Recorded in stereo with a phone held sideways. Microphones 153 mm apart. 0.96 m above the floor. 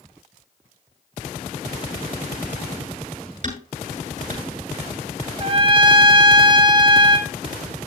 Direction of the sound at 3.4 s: 55° right (ahead or behind).